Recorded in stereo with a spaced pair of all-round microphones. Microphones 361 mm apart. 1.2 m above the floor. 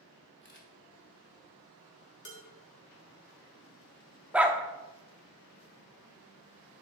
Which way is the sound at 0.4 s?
30° left (ahead or behind).